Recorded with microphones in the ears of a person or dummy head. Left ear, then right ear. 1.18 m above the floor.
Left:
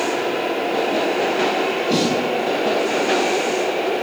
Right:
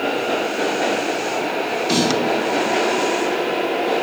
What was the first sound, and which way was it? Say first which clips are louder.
A snare drum: right 3 dB; 65° right (ahead or behind).